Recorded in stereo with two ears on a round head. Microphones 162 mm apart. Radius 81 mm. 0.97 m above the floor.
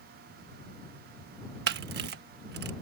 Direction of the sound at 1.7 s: 60° right (ahead or behind).